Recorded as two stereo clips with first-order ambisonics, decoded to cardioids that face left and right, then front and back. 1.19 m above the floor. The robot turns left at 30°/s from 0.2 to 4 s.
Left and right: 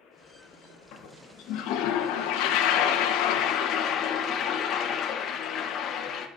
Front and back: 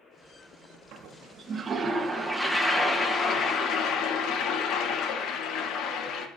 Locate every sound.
0.9 s a toilet flushing: 135° left, 1.4 m; by 6.3 s 40° left, 1.4 m